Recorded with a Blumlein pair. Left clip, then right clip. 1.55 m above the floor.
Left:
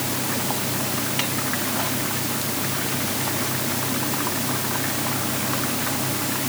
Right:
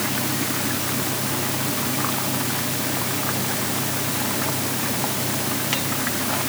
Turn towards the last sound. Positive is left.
No sound to turn to.